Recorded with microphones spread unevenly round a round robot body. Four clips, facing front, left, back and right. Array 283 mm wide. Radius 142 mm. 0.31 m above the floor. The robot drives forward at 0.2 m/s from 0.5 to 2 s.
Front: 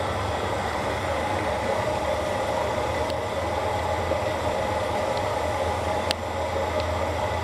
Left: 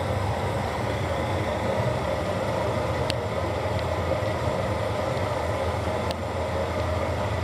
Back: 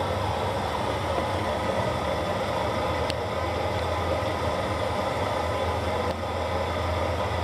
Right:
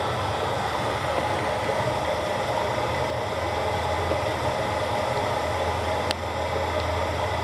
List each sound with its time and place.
0.0 s running water: 100° left, 4 m; by 7.5 s 105° left, 4 m